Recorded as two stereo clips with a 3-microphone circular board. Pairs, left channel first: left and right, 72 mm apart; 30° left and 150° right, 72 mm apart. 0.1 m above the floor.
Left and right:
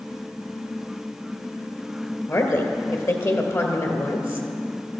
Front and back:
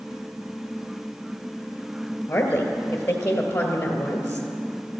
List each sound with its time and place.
2.3 s a woman speaking: 85° left, 2 m